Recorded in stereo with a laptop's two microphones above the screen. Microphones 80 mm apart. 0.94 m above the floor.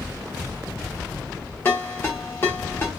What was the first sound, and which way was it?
A ringtone, 30° left (ahead or behind).